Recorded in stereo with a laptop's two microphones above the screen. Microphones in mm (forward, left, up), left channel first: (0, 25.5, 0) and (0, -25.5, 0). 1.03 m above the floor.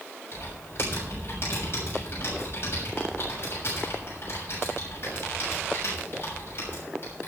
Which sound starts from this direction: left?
Typing on a keyboard, at 0.3 s.